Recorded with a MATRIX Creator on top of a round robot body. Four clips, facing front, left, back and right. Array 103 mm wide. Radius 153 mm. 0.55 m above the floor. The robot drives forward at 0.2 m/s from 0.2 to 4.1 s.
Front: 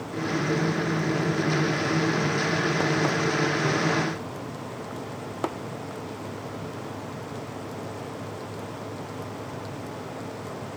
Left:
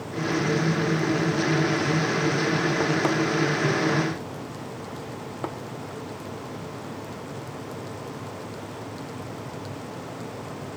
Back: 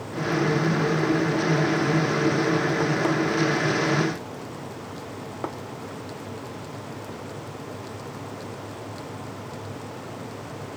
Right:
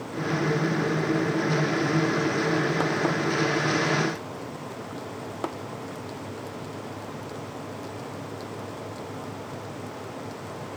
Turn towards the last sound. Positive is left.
No sound to turn to.